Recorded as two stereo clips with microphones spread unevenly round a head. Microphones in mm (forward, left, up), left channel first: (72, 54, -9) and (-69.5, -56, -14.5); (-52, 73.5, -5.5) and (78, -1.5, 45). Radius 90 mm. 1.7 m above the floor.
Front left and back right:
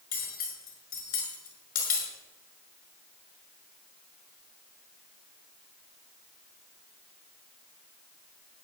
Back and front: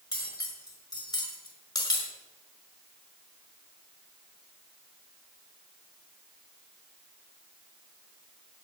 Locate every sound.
0.1 s cutlery clinking: 80° left, 5.5 m